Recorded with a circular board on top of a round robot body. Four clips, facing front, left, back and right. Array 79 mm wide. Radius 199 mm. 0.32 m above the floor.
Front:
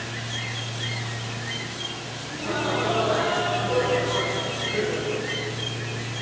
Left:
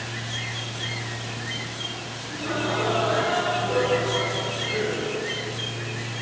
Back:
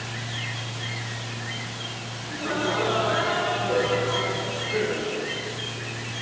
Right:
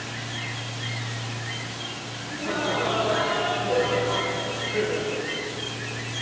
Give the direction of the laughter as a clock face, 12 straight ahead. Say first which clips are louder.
Even, even; 7 o'clock.